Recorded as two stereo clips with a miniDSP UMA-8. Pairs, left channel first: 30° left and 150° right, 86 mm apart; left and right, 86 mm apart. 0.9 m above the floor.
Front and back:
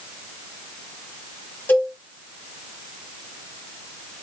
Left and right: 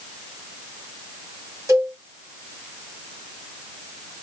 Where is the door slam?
No door slam in this recording.